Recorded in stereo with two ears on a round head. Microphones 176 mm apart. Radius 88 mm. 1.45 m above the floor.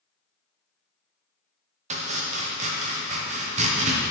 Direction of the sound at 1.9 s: 35° right (ahead or behind).